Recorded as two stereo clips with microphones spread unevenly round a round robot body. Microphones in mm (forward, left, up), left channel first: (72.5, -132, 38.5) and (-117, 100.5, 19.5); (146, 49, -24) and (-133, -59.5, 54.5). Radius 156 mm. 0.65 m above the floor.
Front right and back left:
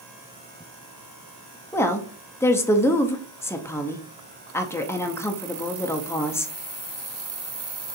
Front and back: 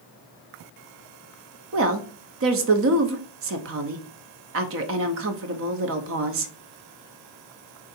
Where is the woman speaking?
130° right, 0.6 m.